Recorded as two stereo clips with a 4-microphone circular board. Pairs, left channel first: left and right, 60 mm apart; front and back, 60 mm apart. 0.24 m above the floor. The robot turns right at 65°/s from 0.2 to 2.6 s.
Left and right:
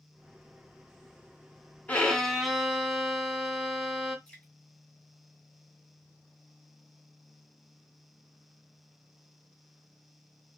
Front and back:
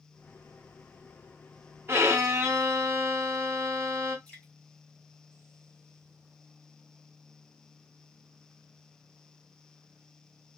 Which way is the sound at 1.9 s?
145° left.